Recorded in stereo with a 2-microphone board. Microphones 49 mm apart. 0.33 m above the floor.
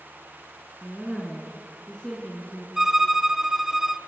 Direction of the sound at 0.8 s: 5° right (ahead or behind).